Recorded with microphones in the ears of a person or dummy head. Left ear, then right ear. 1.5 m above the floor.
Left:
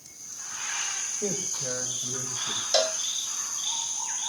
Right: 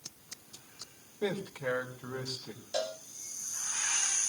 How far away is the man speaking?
About 3 m.